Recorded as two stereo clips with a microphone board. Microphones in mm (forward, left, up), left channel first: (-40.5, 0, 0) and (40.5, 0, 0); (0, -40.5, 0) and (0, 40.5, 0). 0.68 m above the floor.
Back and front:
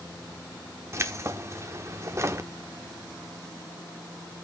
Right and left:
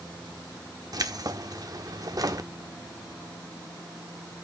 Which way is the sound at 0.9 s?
55° left.